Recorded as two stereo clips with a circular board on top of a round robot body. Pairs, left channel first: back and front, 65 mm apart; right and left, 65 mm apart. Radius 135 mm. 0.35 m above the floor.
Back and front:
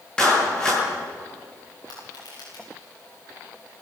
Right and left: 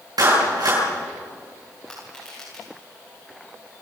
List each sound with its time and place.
0.2 s a clap: 100° left, 9.5 m
1.9 s crushing: 170° right, 7.5 m